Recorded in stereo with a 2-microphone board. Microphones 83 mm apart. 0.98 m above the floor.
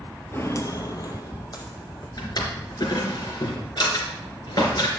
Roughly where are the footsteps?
Left.